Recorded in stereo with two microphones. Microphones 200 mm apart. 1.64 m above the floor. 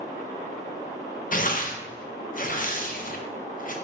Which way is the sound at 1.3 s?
45° left (ahead or behind).